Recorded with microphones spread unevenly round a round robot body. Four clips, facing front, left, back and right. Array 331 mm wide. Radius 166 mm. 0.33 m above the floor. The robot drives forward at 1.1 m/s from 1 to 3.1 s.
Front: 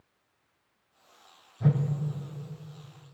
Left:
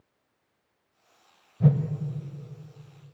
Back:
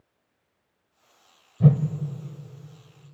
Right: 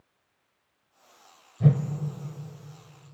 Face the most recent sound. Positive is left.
turn(degrees=175)